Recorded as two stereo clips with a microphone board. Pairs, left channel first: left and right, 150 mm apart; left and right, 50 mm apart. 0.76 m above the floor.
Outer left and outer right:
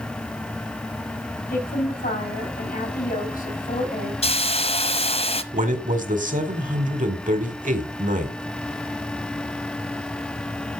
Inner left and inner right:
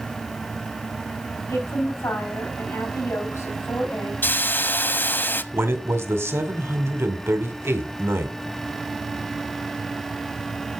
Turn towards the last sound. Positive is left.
turn(degrees=-60)  # may be behind; listen again after turning